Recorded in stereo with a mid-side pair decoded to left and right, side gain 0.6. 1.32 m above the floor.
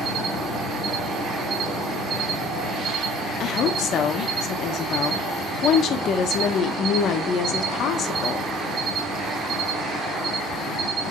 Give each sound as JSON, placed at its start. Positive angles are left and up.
{"t": 0.0, "sound": "an insect", "azimuth_deg": -45, "distance_m": 1.9}
{"t": 3.4, "sound": "a woman speaking", "azimuth_deg": 50, "distance_m": 0.9}